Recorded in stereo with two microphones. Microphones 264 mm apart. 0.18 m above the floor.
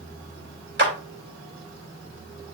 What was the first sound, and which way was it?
A clap, 45° right (ahead or behind).